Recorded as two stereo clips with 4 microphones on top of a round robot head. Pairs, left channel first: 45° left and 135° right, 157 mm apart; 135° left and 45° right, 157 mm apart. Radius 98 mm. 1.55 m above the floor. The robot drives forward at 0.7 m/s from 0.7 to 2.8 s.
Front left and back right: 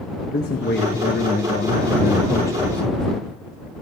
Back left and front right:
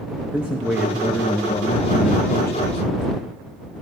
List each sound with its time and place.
0.3 s a man speaking: 35° left, 1.1 m; by 3.3 s 130° left, 0.8 m